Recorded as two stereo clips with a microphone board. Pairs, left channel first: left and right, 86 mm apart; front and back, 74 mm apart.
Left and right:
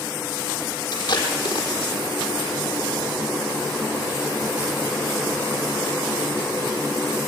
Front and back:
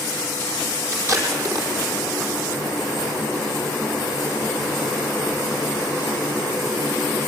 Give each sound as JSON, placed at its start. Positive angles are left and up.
{"t": 0.9, "sound": "tape being pulled", "azimuth_deg": 135, "distance_m": 5.0}